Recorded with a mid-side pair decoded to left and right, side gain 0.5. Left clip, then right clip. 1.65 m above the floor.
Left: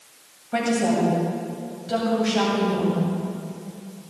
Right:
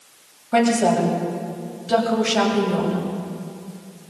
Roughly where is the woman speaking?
Ahead right.